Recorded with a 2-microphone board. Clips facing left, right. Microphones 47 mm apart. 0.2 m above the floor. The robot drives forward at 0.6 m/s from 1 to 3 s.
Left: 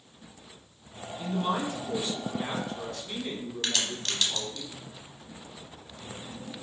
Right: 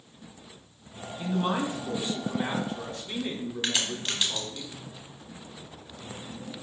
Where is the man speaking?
20° right (ahead or behind), 1.0 m; by 4.6 s 15° right (ahead or behind), 1.4 m.